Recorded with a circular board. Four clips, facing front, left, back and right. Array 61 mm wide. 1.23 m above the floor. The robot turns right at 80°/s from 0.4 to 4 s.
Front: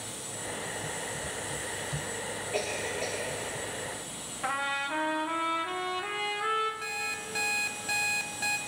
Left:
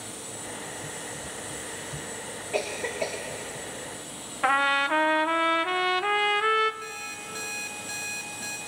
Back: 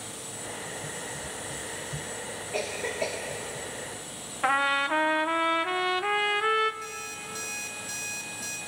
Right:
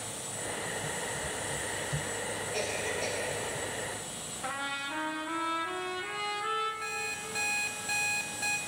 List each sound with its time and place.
2.5 s a cough: 90° left, 2 m; by 3.2 s 140° left, 2 m
4.4 s a trumpet: 120° left, 0.6 m
6.8 s an alarm clock: 15° right, 1.0 m